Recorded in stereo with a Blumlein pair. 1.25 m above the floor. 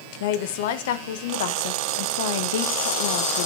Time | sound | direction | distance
0.2 | a woman speaking | 55° left | 1.0 m